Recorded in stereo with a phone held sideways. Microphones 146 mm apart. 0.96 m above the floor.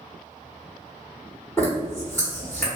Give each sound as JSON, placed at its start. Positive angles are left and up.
{"t": 1.6, "sound": "a zipper", "side_deg": 15, "distance_m": 1.6}